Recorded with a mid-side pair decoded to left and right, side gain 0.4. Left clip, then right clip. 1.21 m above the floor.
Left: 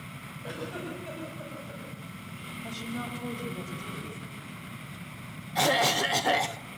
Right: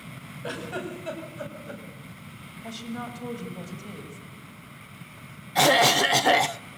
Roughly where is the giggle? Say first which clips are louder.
Right 4 dB; ahead right.